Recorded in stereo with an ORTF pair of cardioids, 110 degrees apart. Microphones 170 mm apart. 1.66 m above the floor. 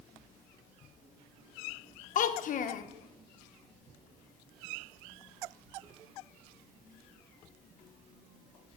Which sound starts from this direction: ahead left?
A child speaking, at 2.1 s.